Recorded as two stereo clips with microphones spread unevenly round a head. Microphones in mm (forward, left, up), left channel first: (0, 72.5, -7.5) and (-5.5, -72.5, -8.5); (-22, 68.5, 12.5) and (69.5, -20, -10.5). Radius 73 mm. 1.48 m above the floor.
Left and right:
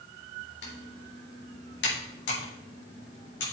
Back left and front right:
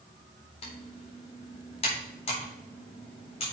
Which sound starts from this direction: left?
Typing on a keyboard, at 0.6 s.